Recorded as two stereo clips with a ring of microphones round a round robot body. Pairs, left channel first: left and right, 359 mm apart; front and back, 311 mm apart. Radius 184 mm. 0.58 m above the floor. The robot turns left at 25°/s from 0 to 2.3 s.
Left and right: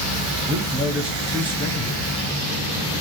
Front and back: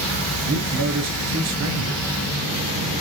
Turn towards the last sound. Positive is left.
turn(degrees=155)